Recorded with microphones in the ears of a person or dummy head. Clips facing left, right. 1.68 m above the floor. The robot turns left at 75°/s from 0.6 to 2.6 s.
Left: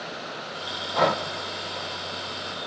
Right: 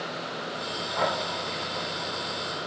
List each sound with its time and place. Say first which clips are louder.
0.9 s breathing: left 5 dB; 50° left (ahead or behind), 0.9 m